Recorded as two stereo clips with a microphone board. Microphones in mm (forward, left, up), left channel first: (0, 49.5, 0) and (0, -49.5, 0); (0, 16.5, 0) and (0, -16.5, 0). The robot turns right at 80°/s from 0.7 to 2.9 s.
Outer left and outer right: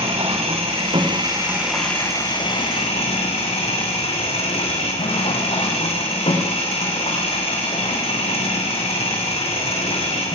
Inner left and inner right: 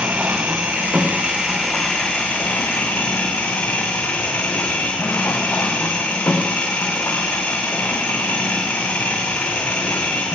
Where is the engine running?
80° right, 6 m; by 10.4 s 95° left, 6 m.